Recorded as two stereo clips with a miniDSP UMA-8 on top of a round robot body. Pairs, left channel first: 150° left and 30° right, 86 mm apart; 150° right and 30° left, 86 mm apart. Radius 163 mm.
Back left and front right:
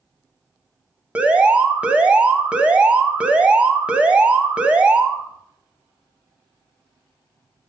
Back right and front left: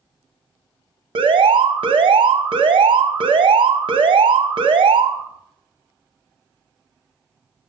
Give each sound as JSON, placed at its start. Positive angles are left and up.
{"t": 1.1, "sound": "an alarm", "azimuth_deg": 45, "distance_m": 1.0}